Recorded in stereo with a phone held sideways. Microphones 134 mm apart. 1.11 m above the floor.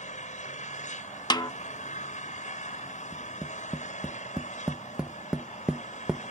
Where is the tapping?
5° right (ahead or behind).